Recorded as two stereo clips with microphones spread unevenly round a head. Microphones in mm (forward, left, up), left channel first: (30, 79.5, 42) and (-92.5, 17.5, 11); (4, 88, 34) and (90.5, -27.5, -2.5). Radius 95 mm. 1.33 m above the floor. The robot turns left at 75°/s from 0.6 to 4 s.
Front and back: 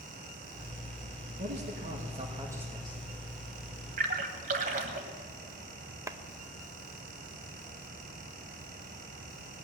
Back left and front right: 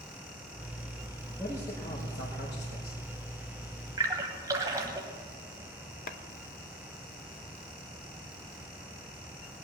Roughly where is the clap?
Behind left.